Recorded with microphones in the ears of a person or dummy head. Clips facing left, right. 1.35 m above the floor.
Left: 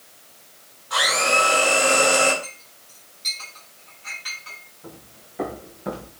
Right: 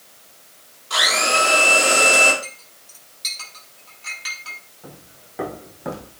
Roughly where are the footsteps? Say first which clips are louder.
Even; right.